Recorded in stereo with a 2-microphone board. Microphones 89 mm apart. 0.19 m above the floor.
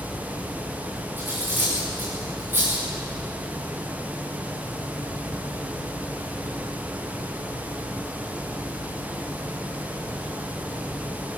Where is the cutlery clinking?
25° right (ahead or behind), 10 m.